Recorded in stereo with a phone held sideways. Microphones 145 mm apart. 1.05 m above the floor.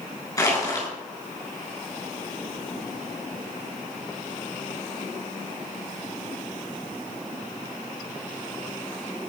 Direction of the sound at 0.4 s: 20° left (ahead or behind).